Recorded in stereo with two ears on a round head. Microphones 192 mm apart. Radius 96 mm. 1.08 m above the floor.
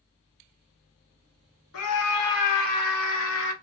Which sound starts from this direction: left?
A scream, at 1.7 s.